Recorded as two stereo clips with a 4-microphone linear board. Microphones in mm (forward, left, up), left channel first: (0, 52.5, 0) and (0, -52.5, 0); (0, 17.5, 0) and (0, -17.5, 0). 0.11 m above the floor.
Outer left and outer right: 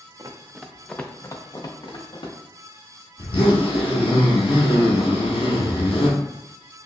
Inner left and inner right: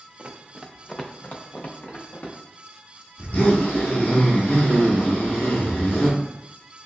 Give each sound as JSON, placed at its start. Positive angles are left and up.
{"t": 0.2, "sound": "running footsteps", "side_deg": -35, "distance_m": 0.5}
{"t": 3.2, "sound": "a zipper", "side_deg": 60, "distance_m": 1.0}